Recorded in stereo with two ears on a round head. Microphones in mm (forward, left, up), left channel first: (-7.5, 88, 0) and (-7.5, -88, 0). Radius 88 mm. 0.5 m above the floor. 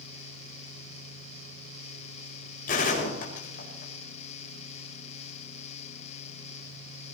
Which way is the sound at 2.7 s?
45° left (ahead or behind).